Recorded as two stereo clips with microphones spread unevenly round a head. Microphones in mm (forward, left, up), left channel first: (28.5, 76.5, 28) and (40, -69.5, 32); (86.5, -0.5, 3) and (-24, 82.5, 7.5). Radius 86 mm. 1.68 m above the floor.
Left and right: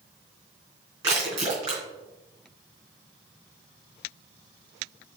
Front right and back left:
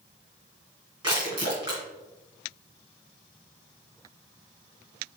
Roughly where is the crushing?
Behind right.